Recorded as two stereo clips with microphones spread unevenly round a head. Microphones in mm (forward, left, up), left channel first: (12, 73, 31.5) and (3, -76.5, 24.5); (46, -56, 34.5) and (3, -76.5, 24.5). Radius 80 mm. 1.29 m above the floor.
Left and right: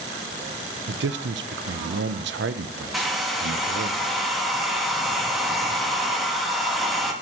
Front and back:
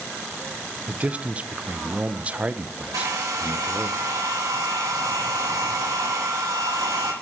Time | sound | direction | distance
0.9 | a man speaking | 90° right | 0.6 m
2.9 | a hair dryer | 175° left | 1.0 m